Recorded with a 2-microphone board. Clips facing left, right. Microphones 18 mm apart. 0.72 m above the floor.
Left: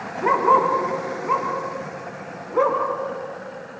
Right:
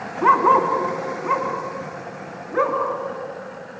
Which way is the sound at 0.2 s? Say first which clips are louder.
Right 2 dB; 75° right (ahead or behind).